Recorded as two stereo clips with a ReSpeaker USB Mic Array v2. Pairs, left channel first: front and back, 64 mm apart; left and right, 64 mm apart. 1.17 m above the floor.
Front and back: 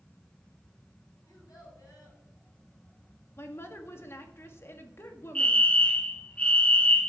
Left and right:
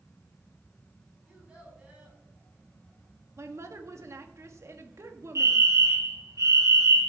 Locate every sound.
1.2 s a child speaking: 20° right, 7 m
3.4 s a woman speaking: 50° right, 1.7 m
5.3 s a fire alarm: 70° right, 1.9 m